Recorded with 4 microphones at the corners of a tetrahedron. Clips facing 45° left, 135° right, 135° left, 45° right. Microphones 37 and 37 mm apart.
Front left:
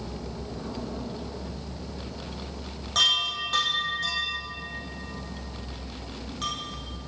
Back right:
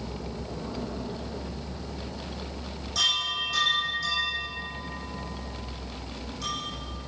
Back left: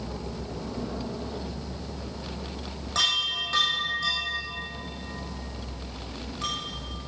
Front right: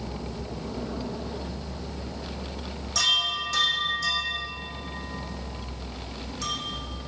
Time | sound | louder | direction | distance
3.0 | a chime | front left 3 dB, front right 1 dB | 80° left | 5 m